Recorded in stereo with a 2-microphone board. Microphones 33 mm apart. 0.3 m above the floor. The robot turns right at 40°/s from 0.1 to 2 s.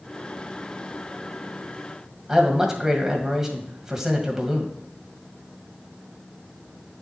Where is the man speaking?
15° right (ahead or behind), 1.8 m.